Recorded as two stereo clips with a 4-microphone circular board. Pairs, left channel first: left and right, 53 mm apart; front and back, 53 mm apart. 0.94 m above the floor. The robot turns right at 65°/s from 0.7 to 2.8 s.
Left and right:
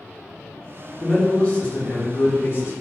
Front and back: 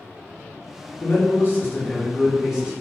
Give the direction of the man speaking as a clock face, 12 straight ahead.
12 o'clock.